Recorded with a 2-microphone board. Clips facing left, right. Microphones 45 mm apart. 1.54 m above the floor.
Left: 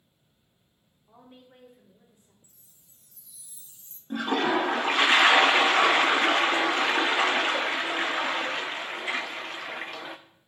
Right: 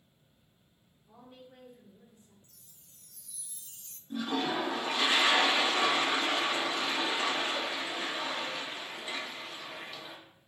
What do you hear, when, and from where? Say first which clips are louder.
1.1 s a woman speaking: left 1 dB; 20° left (ahead or behind), 3.5 m
2.4 s a chime: right 1 dB; 65° right (ahead or behind), 0.6 m
4.1 s a toilet flushing: left 7 dB; 60° left (ahead or behind), 0.7 m